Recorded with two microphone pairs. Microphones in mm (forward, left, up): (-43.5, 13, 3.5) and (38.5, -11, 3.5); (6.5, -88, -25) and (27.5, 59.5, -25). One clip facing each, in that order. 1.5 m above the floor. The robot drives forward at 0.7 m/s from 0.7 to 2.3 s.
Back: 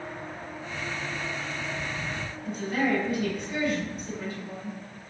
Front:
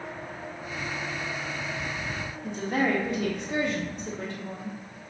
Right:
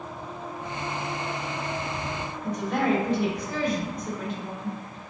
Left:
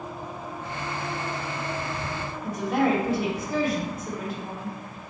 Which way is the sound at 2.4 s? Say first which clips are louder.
Front 1 dB, left 2 dB; 5° right.